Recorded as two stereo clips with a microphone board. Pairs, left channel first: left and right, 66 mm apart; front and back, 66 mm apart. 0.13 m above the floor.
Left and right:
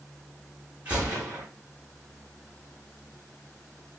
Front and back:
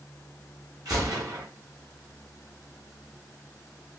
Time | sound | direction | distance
0.8 | a gunshot | 160° right | 5 m